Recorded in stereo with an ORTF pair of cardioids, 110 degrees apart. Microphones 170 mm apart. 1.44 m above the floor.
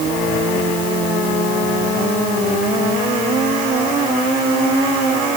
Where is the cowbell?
No cowbell in this recording.